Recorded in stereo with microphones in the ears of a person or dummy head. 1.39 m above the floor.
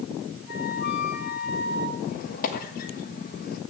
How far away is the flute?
About 2.5 m.